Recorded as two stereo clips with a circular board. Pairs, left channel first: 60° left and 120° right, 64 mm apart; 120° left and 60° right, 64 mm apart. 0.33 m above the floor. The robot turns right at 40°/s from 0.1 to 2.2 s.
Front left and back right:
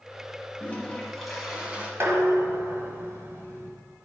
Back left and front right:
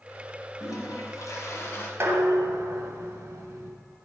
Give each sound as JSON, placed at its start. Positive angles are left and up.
{"t": 0.6, "sound": "a toilet flushing", "azimuth_deg": 120, "distance_m": 1.4}
{"t": 2.0, "sound": "dishes clattering", "azimuth_deg": -90, "distance_m": 1.4}